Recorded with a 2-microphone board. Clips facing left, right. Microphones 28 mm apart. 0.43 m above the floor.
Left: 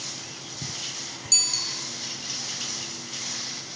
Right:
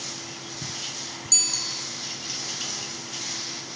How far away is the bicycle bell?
About 5.5 m.